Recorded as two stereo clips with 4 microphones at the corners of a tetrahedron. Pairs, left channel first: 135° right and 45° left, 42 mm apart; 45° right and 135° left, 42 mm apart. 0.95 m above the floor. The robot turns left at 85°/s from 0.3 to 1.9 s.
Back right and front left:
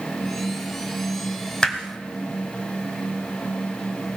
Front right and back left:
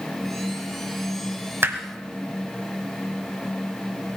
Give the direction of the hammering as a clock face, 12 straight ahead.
7 o'clock.